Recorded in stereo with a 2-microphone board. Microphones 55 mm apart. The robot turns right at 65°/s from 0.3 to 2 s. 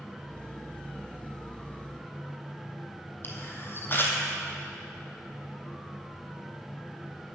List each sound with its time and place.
3.2 s a camera shutter: 40° left (ahead or behind), 1.2 m